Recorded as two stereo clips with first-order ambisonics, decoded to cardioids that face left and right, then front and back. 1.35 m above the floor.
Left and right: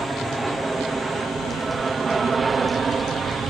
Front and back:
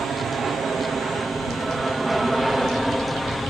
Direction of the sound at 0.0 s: 165° right.